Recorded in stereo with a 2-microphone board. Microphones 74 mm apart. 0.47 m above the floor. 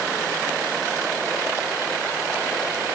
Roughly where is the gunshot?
I don't hear a gunshot.